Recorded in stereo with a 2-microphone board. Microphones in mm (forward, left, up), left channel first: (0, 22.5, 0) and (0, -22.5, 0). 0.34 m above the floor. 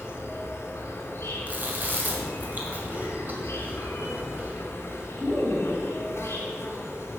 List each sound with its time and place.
0.0 s an insect: 65° left (ahead or behind), 2 m
1.5 s chewing: 40° right (ahead or behind), 2 m